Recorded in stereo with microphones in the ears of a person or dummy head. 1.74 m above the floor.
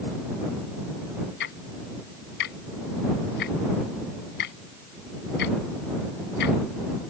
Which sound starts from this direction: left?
Ticking, at 1.4 s.